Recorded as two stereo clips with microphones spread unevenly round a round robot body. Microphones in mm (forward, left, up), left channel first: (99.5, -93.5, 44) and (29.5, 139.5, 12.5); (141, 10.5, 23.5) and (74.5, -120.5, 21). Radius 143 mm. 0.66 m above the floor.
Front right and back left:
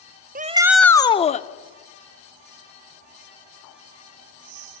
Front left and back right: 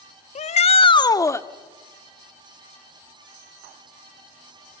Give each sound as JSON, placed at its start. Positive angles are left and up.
{"t": 0.3, "sound": "a shout", "azimuth_deg": 80, "distance_m": 0.8}